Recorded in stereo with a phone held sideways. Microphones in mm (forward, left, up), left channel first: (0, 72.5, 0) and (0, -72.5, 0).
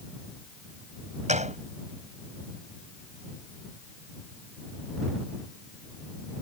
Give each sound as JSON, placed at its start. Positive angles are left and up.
{"t": 1.3, "sound": "a gunshot", "side_deg": -55}